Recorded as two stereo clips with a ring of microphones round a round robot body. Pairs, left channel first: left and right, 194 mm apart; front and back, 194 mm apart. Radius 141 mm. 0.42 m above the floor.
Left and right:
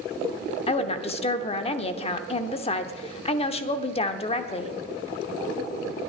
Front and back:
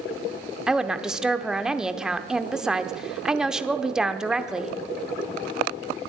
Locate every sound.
0.7 s a woman speaking: 95° left, 0.9 m